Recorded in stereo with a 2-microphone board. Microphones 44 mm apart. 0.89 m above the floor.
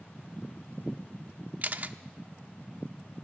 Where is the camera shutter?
40° right (ahead or behind), 0.8 m.